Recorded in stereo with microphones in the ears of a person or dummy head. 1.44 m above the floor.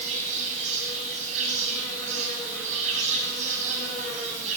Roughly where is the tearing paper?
No tearing paper in this recording.